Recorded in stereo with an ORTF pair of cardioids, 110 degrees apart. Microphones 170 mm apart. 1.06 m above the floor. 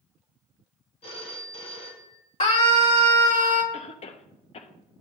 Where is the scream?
45° left, 2.5 m.